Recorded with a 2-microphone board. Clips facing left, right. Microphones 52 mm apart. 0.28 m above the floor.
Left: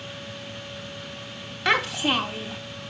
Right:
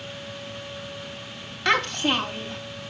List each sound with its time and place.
1.6 s a child speaking: 5° left (ahead or behind), 0.9 m